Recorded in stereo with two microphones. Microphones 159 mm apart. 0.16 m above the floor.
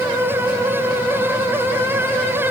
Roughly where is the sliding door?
I don't hear a sliding door.